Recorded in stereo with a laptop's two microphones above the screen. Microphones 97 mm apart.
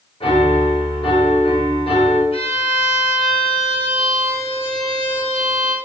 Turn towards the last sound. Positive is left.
turn(degrees=80)